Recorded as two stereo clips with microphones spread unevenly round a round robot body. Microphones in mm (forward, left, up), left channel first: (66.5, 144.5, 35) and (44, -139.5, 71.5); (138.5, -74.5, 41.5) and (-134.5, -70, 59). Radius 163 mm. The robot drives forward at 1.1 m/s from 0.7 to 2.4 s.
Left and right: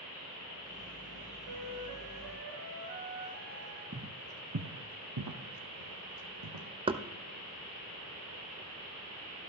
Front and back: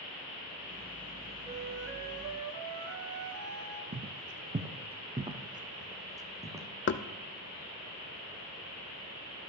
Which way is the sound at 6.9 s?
20° right.